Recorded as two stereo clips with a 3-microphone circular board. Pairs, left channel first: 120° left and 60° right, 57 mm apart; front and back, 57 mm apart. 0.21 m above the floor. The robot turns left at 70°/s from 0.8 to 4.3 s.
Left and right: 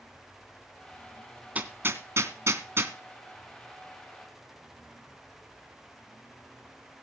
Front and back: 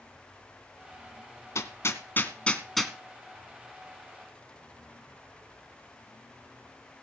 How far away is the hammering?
About 2.0 m.